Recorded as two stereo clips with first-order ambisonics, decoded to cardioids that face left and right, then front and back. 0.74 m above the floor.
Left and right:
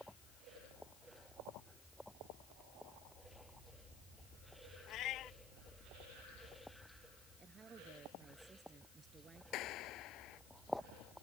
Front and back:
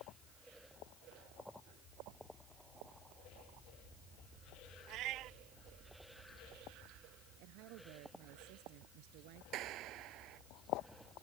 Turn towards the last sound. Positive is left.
turn(degrees=135)